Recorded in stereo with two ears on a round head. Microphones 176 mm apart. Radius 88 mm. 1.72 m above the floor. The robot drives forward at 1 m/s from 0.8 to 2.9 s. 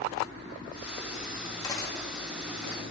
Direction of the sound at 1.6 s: 20° left (ahead or behind).